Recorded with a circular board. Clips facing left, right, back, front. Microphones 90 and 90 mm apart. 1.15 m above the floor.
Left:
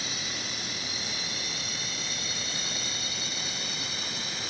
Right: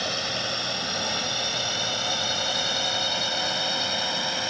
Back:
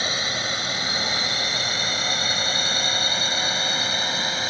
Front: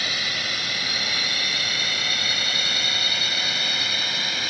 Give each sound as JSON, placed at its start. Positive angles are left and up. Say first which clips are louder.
{"t": 0.0, "sound": "a drone", "louder": "right 8 dB, back 3 dB", "azimuth_deg": -115}